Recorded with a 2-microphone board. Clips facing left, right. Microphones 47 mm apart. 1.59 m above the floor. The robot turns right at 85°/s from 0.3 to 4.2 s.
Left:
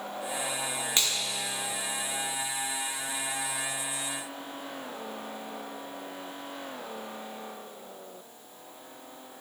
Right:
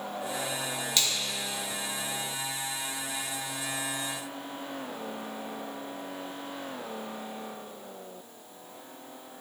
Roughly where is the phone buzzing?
I don't hear a phone buzzing.